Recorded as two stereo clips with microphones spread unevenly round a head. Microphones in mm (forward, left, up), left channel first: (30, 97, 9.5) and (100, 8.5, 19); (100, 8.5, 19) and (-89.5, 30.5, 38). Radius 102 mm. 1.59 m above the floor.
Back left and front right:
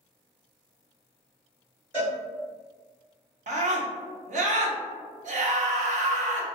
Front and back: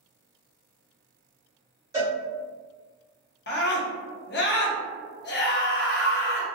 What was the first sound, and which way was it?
A cowbell, 120° right.